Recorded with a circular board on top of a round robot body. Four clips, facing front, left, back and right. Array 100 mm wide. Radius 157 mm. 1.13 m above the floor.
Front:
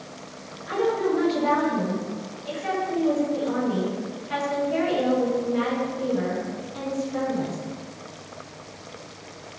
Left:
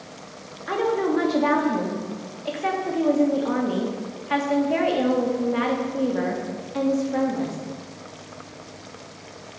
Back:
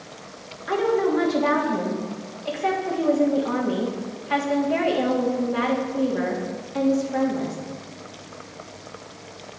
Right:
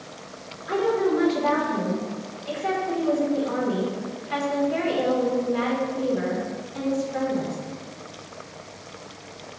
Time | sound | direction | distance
0.7 | a woman speaking | 125° left | 3 m